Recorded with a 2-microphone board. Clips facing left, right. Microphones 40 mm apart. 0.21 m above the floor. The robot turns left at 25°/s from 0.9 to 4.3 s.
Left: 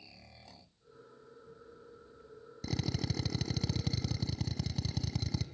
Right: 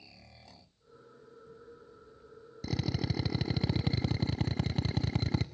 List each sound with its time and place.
2.6 s a drill: 10° right, 0.7 m; by 5.5 s 50° right, 0.7 m